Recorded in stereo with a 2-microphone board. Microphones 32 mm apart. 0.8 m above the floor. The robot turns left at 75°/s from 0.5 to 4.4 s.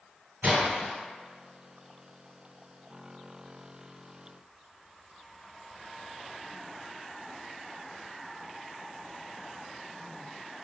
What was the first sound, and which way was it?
A splash, 65° right (ahead or behind).